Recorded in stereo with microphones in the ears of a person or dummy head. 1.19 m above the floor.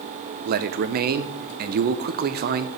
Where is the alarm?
I don't hear an alarm.